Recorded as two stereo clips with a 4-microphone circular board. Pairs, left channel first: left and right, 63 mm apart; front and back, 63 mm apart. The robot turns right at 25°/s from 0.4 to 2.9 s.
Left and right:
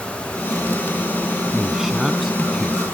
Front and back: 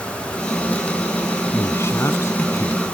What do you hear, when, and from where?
1.5 s a man speaking: 20° right; by 2.8 s 15° left